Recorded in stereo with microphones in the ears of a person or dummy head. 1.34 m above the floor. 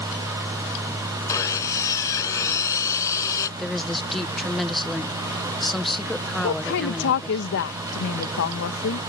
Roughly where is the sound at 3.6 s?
Centre.